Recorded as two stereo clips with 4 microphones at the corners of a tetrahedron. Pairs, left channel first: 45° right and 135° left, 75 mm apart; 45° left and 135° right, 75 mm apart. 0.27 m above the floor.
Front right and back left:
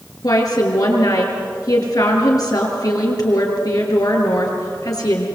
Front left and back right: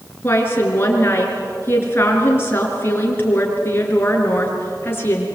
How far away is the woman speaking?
About 5.5 m.